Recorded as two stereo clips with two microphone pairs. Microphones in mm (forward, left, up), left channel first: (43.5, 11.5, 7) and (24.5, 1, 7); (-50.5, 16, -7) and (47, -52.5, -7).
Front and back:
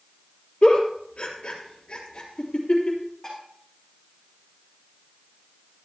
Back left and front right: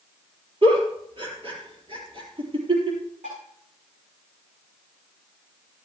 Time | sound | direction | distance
0.6 | a giggle | 5° left | 3.5 m
3.2 | dishes clattering | 30° right | 7 m